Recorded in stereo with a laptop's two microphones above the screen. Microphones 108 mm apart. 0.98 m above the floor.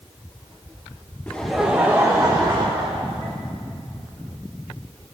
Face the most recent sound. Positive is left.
turn(degrees=-50)  # may be behind; listen again after turning